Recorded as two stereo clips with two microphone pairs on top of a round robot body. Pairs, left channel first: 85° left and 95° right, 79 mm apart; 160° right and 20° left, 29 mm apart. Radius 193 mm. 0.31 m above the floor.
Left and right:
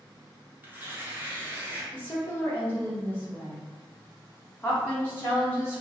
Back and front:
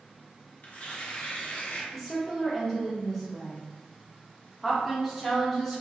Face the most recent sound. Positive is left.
turn(degrees=120)